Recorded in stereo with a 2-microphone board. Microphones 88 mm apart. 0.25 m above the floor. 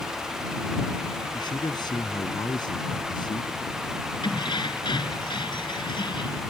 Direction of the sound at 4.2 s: 65° left (ahead or behind).